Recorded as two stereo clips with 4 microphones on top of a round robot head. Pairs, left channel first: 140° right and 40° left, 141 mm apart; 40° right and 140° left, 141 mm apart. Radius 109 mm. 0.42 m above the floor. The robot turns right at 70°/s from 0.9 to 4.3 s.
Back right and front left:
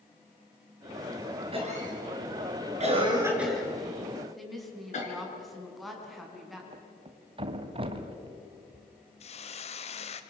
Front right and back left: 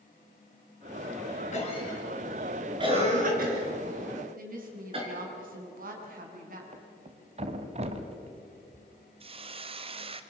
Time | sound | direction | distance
1.5 | a cough | 10° right | 6 m
4.4 | a woman speaking | 135° left | 5 m
6.7 | a thud | 95° left | 1.6 m
9.2 | a hiss | 175° right | 1.4 m